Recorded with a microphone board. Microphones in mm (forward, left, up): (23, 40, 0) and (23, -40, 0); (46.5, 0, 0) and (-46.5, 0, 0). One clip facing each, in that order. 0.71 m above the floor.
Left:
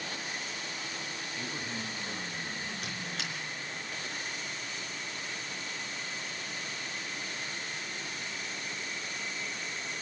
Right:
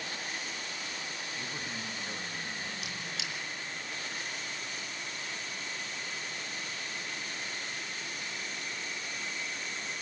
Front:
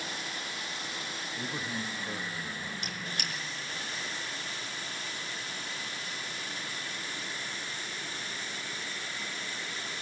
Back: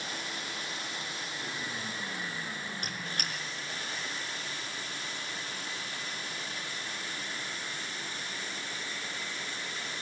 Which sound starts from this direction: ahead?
A man speaking, at 1.4 s.